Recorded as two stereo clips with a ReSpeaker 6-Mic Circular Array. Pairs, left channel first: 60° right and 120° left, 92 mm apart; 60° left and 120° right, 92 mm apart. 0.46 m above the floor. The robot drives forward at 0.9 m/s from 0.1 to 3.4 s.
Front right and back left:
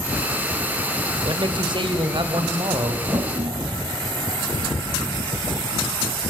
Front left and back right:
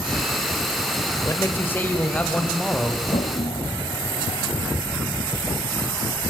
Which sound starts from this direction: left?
A toilet flushing, at 3.1 s.